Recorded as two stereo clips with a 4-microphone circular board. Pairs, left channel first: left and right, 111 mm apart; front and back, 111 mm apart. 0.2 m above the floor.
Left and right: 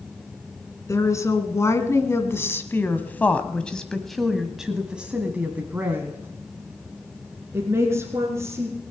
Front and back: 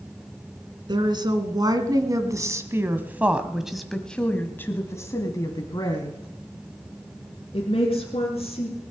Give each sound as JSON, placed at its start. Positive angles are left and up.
{"t": 0.9, "sound": "a woman speaking", "azimuth_deg": 145, "distance_m": 1.9}